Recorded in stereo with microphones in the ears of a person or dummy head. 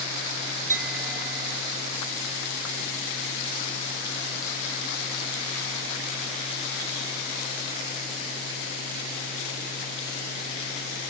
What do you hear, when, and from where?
0.7 s a clink: 40° right (ahead or behind), 5 m